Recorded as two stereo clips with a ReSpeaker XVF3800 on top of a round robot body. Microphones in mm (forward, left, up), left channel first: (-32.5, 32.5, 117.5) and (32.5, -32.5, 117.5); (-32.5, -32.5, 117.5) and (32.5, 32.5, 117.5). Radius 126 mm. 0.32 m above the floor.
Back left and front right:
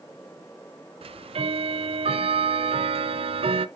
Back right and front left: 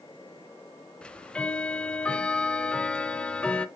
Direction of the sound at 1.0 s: 55° right.